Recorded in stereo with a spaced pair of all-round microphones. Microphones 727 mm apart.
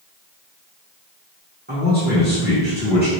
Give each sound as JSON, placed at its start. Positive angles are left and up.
{"t": 1.7, "sound": "a man speaking", "side_deg": -15, "distance_m": 1.1}